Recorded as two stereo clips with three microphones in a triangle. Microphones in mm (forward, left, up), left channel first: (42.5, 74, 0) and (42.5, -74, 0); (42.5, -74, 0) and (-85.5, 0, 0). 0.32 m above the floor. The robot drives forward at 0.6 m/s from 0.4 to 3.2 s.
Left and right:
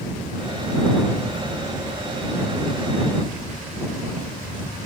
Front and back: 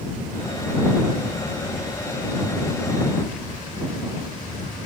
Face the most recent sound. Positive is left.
No sound to turn to.